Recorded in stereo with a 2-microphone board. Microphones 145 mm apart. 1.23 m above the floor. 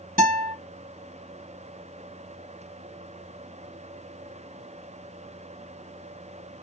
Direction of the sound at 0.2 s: 65° right (ahead or behind).